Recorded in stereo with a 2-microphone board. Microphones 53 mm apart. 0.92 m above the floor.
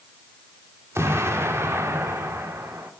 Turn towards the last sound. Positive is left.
turn(degrees=-60)  # may be behind; listen again after turning